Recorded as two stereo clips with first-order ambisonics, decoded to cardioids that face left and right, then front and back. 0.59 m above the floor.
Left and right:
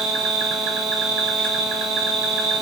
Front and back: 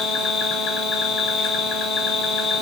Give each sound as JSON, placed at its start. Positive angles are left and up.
{"t": 0.0, "sound": "an insect", "azimuth_deg": -55, "distance_m": 2.5}